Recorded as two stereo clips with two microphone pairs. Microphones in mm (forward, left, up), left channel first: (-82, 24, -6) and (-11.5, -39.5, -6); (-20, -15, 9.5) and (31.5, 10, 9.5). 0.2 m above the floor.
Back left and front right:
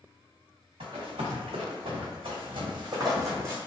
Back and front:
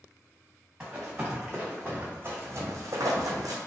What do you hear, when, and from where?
0.8 s running footsteps: 55° right, 1.4 m; by 3.6 s 30° left, 0.8 m